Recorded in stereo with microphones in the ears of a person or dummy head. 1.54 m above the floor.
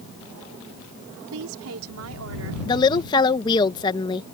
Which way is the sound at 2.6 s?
25° left (ahead or behind).